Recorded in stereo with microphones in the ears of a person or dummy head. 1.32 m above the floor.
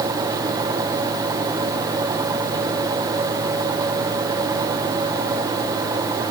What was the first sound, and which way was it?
Only background noise.